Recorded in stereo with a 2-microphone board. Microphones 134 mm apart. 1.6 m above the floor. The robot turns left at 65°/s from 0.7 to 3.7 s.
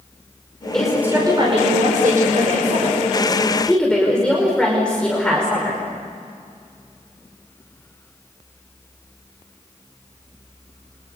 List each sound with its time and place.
0.7 s a woman speaking: 5° left, 5 m; by 5.8 s 175° left, 5 m